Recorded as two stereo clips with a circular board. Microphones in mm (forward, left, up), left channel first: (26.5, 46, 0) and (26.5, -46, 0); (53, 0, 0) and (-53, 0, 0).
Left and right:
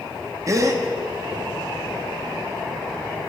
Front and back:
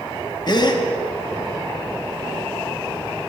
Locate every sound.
0.5 s a gasp: 40° right, 0.9 m